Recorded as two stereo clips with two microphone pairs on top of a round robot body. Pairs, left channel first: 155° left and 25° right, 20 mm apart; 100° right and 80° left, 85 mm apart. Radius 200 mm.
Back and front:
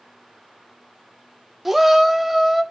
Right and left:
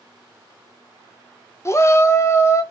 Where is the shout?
80° right, 0.6 m.